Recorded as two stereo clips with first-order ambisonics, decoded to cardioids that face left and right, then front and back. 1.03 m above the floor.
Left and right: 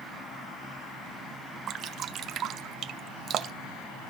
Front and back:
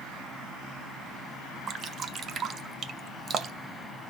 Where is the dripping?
130° right, 0.6 m.